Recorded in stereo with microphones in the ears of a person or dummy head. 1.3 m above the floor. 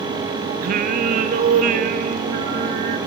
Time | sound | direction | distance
0.6 | singing | 50° right (ahead or behind) | 0.6 m